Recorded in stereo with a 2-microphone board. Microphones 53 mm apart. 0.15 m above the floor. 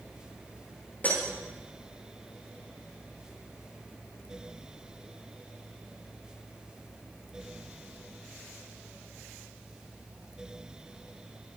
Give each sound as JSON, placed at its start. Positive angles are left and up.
{"t": 1.0, "sound": "breaking glass", "side_deg": 30, "distance_m": 7.0}